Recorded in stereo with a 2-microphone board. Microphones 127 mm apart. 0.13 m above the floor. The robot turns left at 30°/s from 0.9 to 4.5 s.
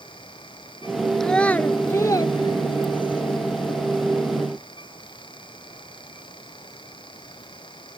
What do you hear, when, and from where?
1.2 s a child speaking: 5° left (ahead or behind); by 3.2 s 45° left (ahead or behind)